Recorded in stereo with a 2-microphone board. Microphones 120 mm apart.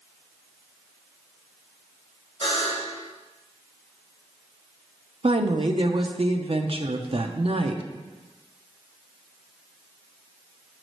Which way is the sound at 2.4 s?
45° left (ahead or behind).